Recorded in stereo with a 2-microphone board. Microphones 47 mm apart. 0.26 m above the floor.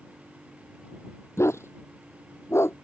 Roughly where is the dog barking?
Left.